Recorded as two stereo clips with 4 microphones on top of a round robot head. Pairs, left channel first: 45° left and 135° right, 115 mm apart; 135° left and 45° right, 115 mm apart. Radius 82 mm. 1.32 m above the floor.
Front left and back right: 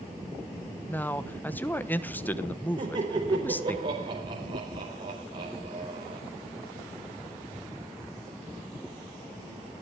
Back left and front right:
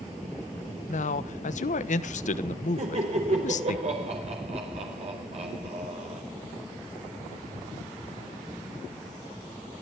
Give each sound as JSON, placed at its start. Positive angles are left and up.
{"t": 0.9, "sound": "a man speaking", "azimuth_deg": 120, "distance_m": 1.1}
{"t": 2.8, "sound": "laughter", "azimuth_deg": -80, "distance_m": 4.5}